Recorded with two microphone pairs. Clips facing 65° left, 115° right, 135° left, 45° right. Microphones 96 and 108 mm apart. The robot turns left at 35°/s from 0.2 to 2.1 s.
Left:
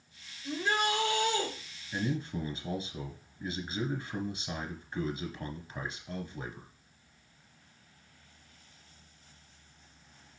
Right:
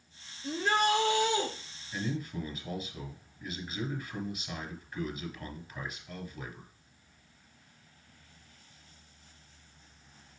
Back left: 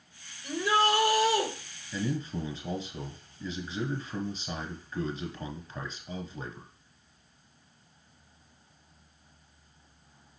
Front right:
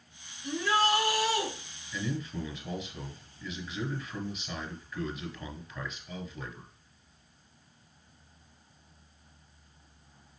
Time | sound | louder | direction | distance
0.4 | a shout | right 3 dB, back left 2 dB | 150° right | 3.5 m
1.9 | a man speaking | left 2 dB, back left 3 dB | 115° left | 1.8 m